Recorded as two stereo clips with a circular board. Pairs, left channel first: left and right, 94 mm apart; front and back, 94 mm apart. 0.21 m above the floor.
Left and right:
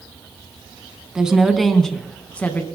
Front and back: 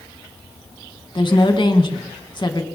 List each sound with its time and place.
1.1 s a woman speaking: 10° right, 1.7 m; by 2.6 s 25° left, 1.7 m